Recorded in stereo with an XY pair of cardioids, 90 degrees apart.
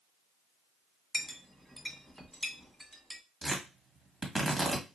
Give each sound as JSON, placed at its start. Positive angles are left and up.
{"t": 1.1, "sound": "a clink", "azimuth_deg": -10, "distance_m": 1.3}
{"t": 3.4, "sound": "tearing paper", "azimuth_deg": -25, "distance_m": 1.8}